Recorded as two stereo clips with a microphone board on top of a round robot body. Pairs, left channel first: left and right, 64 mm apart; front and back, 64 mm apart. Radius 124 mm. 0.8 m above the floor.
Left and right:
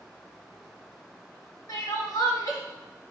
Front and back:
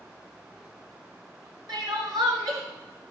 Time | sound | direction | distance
1.7 | crying | 145° left | 0.6 m